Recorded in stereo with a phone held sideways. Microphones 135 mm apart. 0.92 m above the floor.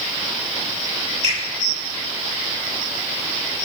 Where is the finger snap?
60° right (ahead or behind), 4.5 m.